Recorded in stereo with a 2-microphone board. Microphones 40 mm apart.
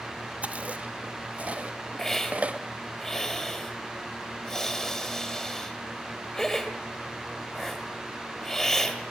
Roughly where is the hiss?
Centre.